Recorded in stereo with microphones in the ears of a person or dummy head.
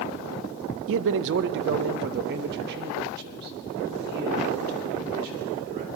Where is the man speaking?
70° right (ahead or behind), 0.5 m; by 5.8 s 50° right (ahead or behind), 3 m.